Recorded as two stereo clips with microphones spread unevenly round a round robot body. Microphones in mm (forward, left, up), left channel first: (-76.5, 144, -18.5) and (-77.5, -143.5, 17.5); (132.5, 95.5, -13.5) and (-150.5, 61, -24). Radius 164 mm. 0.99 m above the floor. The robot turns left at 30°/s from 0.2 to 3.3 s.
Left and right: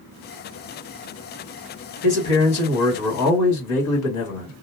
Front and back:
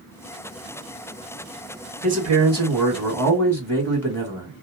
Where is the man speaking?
120° left, 1.5 m; by 4.5 s 85° left, 1.5 m.